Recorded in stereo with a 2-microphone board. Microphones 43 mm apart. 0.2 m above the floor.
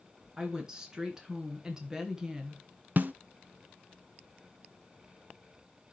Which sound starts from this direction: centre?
A woman speaking, at 0.4 s.